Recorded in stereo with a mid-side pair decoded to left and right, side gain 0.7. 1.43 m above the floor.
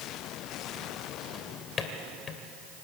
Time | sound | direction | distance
1.3 | a drawer | 35° left | 2.5 m